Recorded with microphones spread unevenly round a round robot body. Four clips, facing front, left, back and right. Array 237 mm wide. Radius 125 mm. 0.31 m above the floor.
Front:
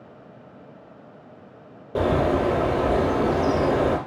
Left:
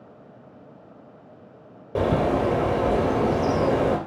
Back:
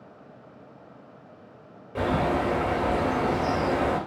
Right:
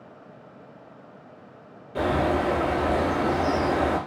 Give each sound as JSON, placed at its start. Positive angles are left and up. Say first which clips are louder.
{"t": 1.9, "sound": "a bird", "louder": "left 2 dB, front 4 dB", "azimuth_deg": 45, "distance_m": 4.0}